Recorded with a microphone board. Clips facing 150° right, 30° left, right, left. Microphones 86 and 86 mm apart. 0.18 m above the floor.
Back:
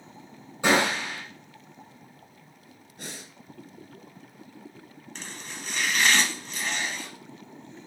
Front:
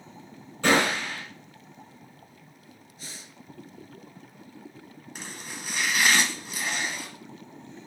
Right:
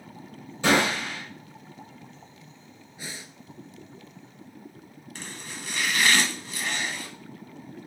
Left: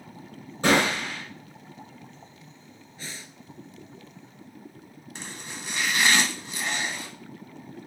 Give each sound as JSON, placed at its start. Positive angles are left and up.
{"t": 0.6, "sound": "a gunshot", "azimuth_deg": 135, "distance_m": 3.5}
{"t": 3.0, "sound": "breathing", "azimuth_deg": -165, "distance_m": 0.5}
{"t": 5.2, "sound": "chopping", "azimuth_deg": 90, "distance_m": 0.8}